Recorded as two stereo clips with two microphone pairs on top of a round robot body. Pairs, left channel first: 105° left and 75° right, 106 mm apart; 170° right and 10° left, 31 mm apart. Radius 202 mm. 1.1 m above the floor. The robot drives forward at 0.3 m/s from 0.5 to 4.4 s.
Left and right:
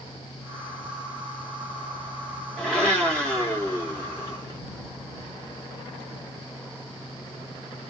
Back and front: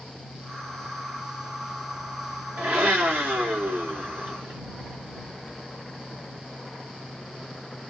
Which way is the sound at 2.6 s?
25° left.